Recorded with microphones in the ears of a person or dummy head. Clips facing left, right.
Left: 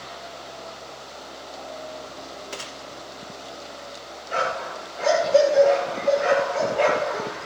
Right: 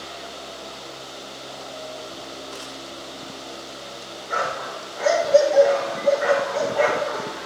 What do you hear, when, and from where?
2.5 s a gunshot: 30° left (ahead or behind), 1.7 m
4.3 s a dog barking: 70° right (ahead or behind), 9.5 m